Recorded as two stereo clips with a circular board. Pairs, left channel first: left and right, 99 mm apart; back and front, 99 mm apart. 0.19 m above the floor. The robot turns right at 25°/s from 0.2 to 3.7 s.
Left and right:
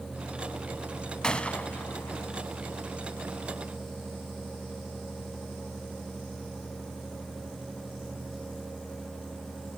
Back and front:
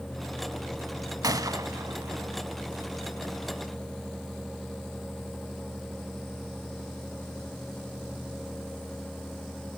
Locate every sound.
1.2 s a gunshot: 10° left, 0.6 m; by 2.4 s 40° left, 0.6 m